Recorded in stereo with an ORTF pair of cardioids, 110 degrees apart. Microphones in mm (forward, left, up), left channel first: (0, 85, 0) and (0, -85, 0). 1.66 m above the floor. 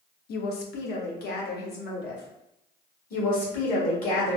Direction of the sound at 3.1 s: 55° left.